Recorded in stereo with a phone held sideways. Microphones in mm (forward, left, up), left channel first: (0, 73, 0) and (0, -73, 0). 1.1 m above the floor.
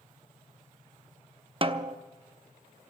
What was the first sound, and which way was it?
A snare drum, 40° right (ahead or behind).